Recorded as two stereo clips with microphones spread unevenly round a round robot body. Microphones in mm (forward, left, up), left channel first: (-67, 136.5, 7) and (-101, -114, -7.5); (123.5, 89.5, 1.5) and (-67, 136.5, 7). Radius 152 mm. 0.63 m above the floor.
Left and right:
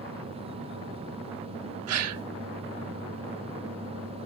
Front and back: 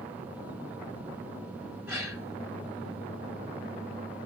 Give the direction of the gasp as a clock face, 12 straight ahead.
4 o'clock.